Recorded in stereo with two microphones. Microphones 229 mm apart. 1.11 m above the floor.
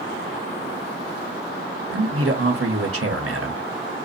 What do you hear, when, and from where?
1.9 s a man speaking: 85° right, 1.5 m